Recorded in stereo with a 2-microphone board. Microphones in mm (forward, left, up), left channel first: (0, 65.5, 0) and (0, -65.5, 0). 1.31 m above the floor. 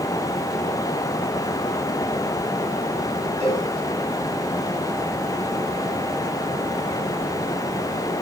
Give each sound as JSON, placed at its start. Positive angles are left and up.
{"t": 3.4, "sound": "a cowbell", "side_deg": -55, "distance_m": 9.0}